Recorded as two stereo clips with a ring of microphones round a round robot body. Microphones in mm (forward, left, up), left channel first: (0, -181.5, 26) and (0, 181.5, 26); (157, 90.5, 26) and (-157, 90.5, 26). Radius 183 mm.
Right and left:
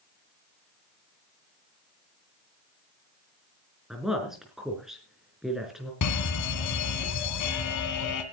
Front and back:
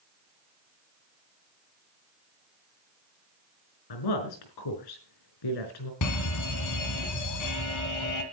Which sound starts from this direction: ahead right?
An alarm, at 6.0 s.